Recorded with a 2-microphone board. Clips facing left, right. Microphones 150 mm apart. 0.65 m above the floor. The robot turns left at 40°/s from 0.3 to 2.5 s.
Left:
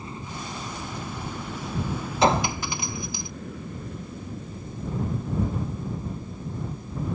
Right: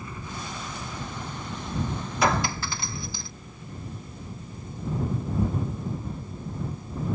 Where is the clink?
25° left (ahead or behind); by 3.3 s 15° left (ahead or behind).